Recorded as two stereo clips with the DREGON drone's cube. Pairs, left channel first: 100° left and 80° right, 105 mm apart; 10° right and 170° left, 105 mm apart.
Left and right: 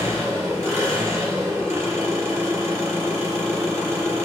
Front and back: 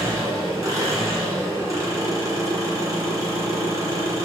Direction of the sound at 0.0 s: 140° right.